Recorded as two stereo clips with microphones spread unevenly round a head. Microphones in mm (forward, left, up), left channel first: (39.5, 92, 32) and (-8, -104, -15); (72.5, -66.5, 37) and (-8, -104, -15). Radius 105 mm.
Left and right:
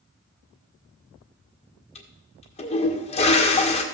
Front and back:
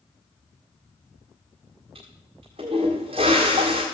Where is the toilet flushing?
130° left, 1.7 m.